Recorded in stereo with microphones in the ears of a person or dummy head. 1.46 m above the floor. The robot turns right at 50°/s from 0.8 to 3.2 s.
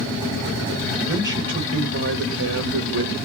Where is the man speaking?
175° right, 1.1 m; by 3.2 s 70° right, 1.1 m.